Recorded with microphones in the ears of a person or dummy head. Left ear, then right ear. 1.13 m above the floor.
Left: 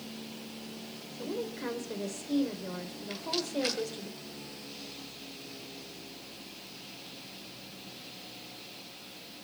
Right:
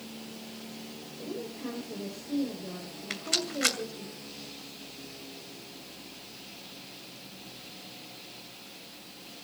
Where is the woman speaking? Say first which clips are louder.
Left 3 dB; 65° left (ahead or behind), 4 m.